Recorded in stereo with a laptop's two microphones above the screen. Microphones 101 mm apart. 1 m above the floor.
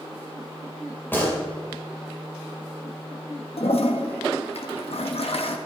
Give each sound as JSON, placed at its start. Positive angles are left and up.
{"t": 1.1, "sound": "a gunshot", "side_deg": 20, "distance_m": 3.0}
{"t": 3.6, "sound": "a toilet flushing", "side_deg": 75, "distance_m": 1.3}